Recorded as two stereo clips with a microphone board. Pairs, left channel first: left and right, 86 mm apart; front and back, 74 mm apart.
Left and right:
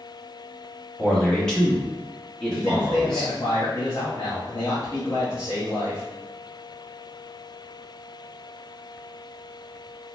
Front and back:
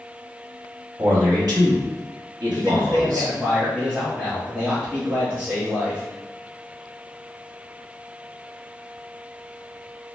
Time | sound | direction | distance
1.0 | a man speaking | 170° left | 1.5 m
2.5 | a man speaking | 115° left | 1.6 m